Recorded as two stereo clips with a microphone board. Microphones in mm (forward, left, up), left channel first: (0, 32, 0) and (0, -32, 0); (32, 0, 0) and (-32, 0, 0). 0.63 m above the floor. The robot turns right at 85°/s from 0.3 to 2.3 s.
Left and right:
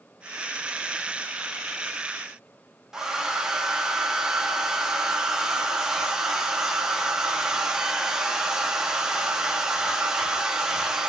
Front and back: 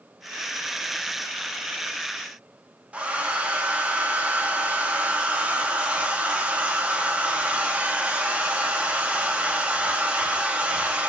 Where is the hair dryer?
155° right, 0.8 m.